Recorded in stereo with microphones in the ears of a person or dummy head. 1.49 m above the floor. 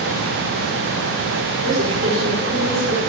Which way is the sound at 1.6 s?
65° right (ahead or behind).